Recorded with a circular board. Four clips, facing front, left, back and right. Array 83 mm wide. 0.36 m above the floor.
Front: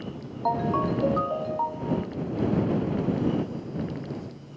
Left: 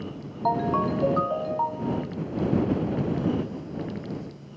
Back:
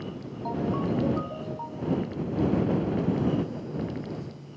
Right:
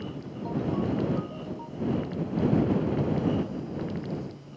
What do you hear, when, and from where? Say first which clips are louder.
0.5 s a ringtone: left 5 dB, front 4 dB; 55° left